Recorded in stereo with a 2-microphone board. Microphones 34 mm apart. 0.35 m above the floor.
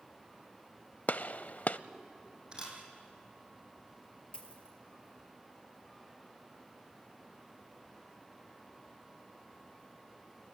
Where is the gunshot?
50° left (ahead or behind), 0.6 m.